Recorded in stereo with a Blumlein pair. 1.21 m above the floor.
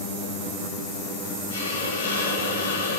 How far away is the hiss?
About 7 m.